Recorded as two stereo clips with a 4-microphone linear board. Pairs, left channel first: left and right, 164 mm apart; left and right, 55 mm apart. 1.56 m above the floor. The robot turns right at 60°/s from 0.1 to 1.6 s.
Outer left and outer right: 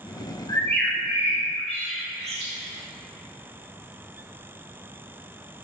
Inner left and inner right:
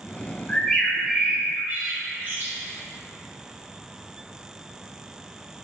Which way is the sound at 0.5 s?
25° left (ahead or behind).